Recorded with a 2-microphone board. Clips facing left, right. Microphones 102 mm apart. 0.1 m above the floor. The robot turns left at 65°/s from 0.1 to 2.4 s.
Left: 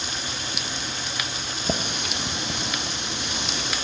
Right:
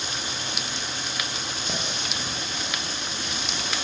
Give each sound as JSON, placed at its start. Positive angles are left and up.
{"t": 1.6, "sound": "a running tap", "azimuth_deg": 135, "distance_m": 3.5}